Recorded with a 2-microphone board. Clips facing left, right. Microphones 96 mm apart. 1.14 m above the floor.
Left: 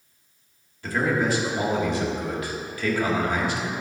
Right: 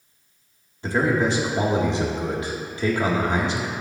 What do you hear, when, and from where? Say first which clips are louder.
0.8 s a man speaking: right 2 dB; 25° right (ahead or behind), 1.8 m